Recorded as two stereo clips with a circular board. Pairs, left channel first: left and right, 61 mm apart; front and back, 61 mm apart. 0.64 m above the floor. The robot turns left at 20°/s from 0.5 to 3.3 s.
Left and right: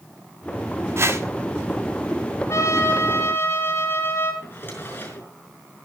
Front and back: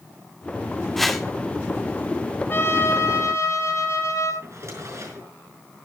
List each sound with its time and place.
1.0 s a whoosh: 85° right, 1.5 m; by 1.2 s 90° right, 1.5 m
2.5 s a trumpet: 55° left, 6.5 m; by 4.3 s 40° left, 6.5 m
4.4 s a drawer: 145° left, 5 m